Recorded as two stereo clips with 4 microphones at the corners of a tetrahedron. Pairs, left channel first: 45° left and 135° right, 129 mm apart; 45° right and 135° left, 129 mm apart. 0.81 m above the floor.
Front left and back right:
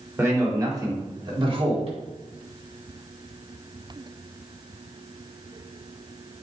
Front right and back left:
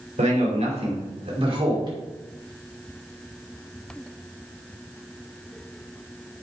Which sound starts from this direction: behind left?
A man speaking, at 0.2 s.